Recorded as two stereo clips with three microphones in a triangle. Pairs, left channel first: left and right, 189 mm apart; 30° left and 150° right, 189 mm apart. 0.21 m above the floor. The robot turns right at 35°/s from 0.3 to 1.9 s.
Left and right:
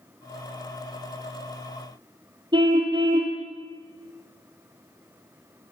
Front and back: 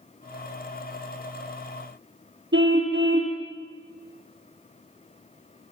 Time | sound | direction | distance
2.5 | a car horn | 155° right | 3.5 m